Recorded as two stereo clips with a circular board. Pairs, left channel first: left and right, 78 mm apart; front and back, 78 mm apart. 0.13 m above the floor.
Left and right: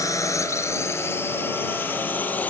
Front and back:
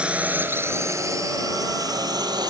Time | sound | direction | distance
0.0 | a drone | 110° left | ?